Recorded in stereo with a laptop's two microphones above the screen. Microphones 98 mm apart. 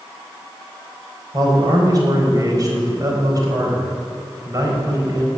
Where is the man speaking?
40° right (ahead or behind), 4 m.